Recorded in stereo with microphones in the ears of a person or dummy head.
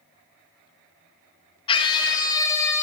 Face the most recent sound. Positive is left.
turn(degrees=10)  # may be behind; listen again after turning